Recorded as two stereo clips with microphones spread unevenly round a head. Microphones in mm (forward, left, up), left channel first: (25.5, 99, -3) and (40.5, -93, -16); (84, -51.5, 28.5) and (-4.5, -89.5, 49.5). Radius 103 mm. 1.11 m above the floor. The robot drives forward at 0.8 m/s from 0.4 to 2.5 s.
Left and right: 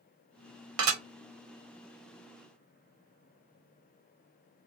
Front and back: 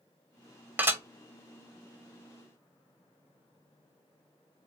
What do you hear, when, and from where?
0.8 s dishes clattering: 85° right, 0.9 m; by 1.0 s 95° right, 1.0 m